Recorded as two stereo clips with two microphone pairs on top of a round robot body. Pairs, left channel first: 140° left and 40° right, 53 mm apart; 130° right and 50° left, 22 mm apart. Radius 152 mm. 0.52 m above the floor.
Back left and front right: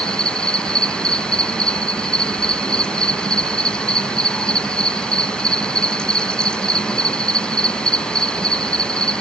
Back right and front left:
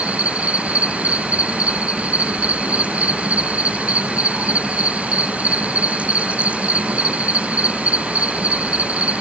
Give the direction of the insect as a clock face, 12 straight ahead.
10 o'clock.